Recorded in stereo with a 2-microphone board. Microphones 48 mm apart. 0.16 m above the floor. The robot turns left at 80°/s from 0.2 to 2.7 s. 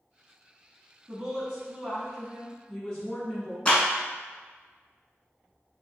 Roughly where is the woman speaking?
Right.